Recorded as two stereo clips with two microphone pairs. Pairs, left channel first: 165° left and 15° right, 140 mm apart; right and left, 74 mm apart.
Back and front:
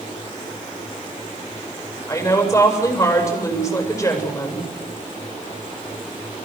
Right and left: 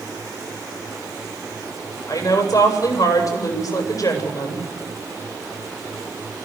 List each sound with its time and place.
2.1 s a woman speaking: 120° right, 8 m